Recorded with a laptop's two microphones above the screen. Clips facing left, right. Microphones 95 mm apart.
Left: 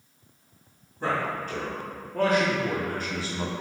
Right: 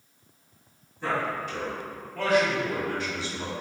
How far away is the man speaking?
About 2.0 m.